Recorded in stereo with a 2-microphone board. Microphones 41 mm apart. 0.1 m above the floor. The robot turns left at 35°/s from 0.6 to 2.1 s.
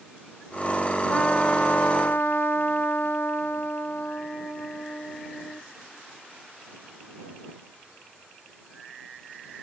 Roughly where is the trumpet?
Behind left.